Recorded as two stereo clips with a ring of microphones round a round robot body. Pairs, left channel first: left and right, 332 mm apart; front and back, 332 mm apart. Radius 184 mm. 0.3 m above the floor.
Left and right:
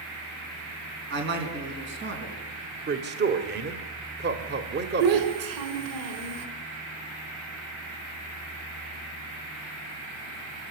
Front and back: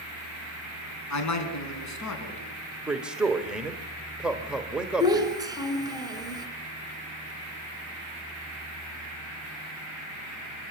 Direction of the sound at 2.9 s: 95° right.